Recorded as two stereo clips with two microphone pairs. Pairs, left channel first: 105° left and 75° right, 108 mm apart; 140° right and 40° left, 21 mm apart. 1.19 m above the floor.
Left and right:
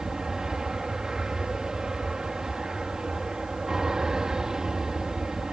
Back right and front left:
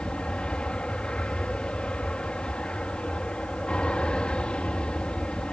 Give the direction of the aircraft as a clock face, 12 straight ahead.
5 o'clock.